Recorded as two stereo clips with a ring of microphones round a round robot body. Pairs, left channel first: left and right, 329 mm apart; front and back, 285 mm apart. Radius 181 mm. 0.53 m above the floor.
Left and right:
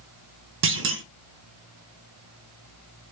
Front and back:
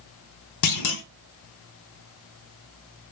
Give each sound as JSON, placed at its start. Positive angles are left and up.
{"t": 0.6, "sound": "a clunk", "azimuth_deg": -35, "distance_m": 0.5}